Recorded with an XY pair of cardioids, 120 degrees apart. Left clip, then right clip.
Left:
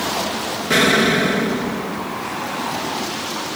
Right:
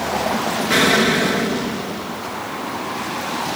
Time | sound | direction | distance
0.7 | an explosion | 5° left | 0.6 m